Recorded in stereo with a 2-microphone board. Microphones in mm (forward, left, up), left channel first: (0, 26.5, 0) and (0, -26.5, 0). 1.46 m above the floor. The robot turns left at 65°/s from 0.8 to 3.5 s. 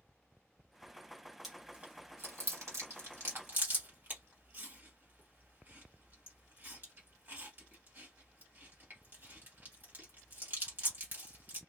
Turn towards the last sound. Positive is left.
turn(degrees=-40)  # may be behind; listen again after turning